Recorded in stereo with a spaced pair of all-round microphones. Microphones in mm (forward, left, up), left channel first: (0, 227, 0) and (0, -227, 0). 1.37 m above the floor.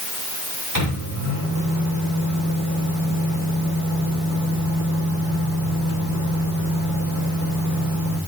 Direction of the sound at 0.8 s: 45° left (ahead or behind).